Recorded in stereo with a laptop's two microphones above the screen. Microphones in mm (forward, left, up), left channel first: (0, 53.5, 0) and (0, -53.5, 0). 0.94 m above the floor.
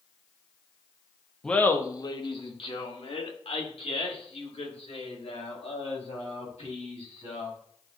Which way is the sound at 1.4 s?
5° left (ahead or behind).